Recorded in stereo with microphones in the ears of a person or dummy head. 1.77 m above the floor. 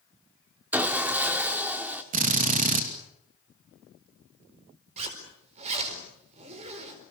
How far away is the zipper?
About 4.5 m.